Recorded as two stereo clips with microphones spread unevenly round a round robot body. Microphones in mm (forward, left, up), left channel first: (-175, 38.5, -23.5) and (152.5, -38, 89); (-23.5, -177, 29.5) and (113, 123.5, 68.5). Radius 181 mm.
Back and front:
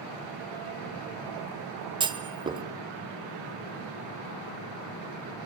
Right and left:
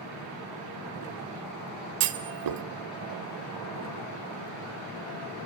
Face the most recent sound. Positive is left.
turn(degrees=70)